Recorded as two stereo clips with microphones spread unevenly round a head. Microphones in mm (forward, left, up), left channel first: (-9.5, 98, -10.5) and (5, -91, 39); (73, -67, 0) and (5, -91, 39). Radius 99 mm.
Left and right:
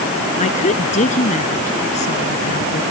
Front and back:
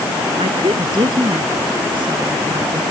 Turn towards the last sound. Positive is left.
turn(degrees=150)